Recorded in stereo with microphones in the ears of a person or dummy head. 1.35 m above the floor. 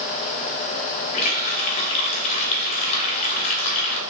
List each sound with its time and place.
1.1 s a running tap: 35° left (ahead or behind), 0.6 m